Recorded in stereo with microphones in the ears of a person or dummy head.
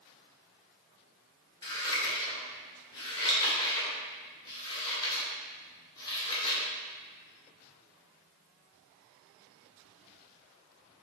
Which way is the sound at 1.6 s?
25° left (ahead or behind).